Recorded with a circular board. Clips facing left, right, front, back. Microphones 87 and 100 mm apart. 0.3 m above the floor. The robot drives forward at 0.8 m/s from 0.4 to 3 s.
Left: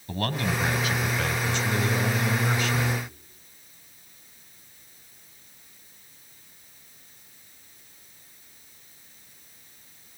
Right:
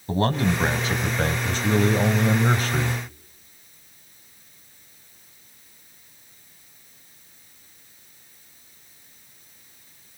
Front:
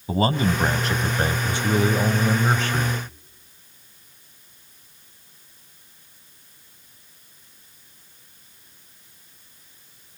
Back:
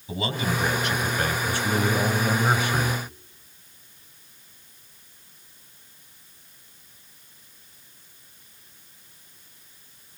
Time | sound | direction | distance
0.1 | a man speaking | 35° right | 2 m